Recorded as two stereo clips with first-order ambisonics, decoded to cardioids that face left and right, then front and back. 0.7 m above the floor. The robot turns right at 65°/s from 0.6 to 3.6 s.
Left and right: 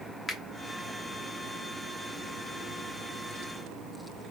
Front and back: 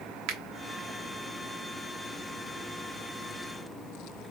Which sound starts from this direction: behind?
A finger snap, at 0.3 s.